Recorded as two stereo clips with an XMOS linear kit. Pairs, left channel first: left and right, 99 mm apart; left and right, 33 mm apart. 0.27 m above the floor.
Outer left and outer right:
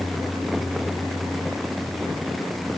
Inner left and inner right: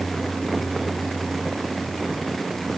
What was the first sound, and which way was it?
Only background noise.